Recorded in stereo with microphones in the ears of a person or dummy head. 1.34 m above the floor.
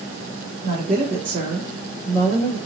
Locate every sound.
0.6 s a woman speaking: 45° right (ahead or behind), 1.7 m; by 2.6 s 20° left (ahead or behind), 1.2 m